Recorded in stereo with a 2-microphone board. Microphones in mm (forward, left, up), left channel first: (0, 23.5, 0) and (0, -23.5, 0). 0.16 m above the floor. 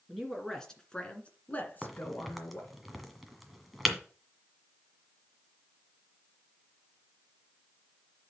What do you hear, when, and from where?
0.1 s a woman speaking: 5° left (ahead or behind), 2.5 m; by 2.7 s 55° left (ahead or behind), 2.5 m
1.8 s a crack: centre (ahead or behind), 1.6 m